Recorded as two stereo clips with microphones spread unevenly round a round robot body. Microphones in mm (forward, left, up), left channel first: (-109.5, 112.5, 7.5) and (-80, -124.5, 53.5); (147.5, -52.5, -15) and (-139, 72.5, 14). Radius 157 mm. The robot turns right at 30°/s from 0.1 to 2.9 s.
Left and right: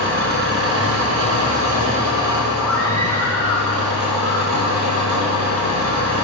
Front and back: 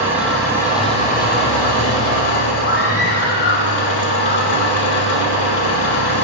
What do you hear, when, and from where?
0.0 s an engine running: 120° right, 1.7 m; by 6.2 s 40° right, 1.7 m
2.6 s a scream: 15° left, 1.2 m; by 6.2 s 25° left, 1.2 m